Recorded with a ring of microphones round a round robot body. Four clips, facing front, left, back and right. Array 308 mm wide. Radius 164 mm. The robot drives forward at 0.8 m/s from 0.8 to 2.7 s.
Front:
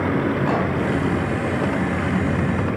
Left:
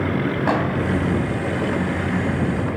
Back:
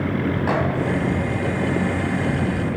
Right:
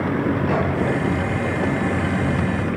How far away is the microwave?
About 3.5 m.